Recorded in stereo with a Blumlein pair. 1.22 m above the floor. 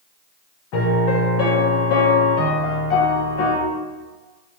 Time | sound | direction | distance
0.7 | a piano | 45° left | 0.8 m